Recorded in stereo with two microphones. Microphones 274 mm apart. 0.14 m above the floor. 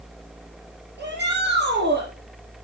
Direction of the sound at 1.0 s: 40° right (ahead or behind).